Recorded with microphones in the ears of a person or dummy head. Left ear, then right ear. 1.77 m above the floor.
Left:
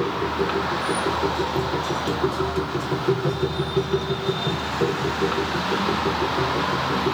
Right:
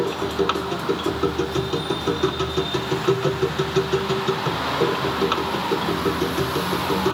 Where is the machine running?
80° right, 1.5 m.